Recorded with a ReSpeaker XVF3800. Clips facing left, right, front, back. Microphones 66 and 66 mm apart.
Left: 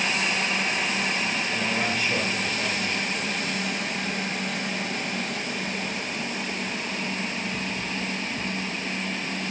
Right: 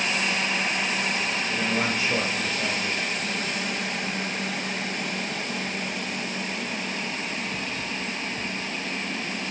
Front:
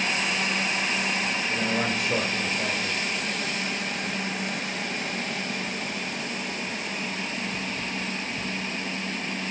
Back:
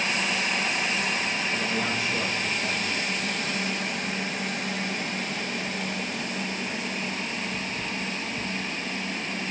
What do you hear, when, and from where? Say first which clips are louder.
1.5 s a man speaking: right 3 dB, front 1 dB; 25° right, 3.5 m